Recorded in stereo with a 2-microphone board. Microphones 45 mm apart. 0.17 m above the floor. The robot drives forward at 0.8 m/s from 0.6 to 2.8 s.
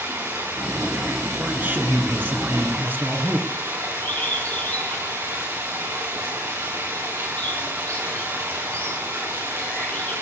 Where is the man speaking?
45° right (ahead or behind), 3 m; by 3.5 s 50° right (ahead or behind), 2.5 m.